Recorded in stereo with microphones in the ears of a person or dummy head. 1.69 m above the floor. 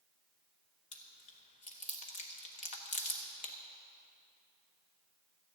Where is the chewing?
40° left (ahead or behind), 1.3 m.